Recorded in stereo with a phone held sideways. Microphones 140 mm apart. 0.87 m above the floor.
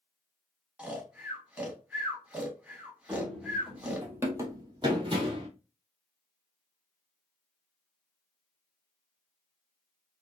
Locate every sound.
0.8 s snoring: 5° right (ahead or behind), 1.0 m
3.1 s running footsteps: 5° left (ahead or behind), 1.2 m; by 5.5 s 45° right (ahead or behind), 1.1 m